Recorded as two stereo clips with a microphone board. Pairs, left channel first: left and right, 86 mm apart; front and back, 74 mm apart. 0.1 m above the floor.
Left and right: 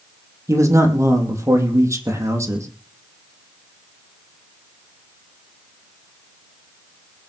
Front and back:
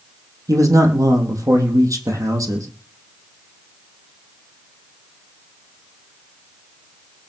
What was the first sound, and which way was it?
A man speaking, 145° right.